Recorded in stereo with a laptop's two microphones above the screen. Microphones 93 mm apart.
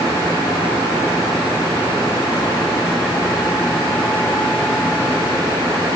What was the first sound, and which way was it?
Only background noise.